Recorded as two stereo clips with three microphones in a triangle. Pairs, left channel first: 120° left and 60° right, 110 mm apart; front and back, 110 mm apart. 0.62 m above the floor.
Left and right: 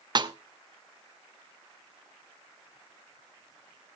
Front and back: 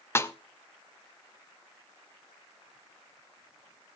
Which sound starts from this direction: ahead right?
A snare drum, at 0.1 s.